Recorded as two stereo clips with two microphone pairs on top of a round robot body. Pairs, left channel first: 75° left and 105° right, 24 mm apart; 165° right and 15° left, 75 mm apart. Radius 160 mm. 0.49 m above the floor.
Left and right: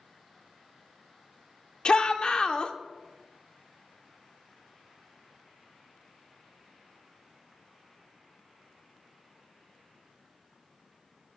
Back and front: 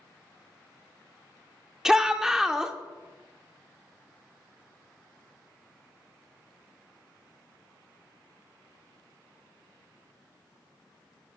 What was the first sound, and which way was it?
A shout, 105° left.